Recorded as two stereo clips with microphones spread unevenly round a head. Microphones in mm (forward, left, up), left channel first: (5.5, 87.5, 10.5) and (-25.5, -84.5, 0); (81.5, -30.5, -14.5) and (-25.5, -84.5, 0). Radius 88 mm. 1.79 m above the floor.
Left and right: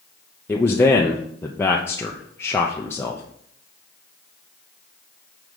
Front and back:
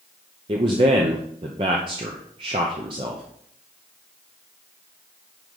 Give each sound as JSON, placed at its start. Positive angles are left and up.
{"t": 0.5, "sound": "a man speaking", "azimuth_deg": 155, "distance_m": 0.7}